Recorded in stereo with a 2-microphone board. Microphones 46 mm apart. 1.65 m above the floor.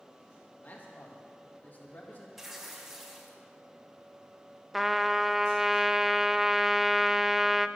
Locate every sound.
0.6 s a man speaking: 40° left (ahead or behind), 2 m
2.4 s tearing paper: 5° right (ahead or behind), 2 m
4.7 s a trumpet: 5° right (ahead or behind), 0.5 m